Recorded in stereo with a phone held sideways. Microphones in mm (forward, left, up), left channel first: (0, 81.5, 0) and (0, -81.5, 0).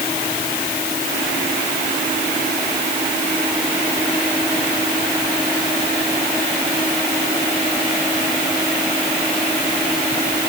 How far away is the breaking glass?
No breaking glass in this recording.